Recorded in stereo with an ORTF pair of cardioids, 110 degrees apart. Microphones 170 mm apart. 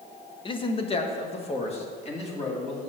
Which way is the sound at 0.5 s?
30° left.